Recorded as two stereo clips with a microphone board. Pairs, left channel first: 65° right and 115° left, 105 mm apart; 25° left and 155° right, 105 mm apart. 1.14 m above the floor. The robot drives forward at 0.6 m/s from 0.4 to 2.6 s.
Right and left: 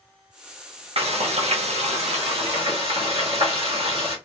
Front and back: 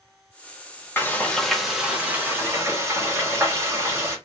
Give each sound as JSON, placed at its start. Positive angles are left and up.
{"t": 1.0, "sound": "frying", "azimuth_deg": 90, "distance_m": 1.0}